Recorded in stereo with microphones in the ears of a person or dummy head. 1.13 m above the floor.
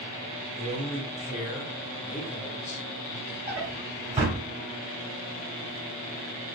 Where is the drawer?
35° right (ahead or behind), 1.6 m.